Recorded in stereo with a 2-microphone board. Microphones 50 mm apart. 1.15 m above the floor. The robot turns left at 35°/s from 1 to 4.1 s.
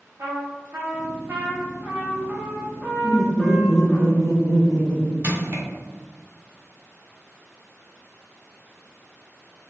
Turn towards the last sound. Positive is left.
turn(degrees=-45)  # may be behind; listen again after turning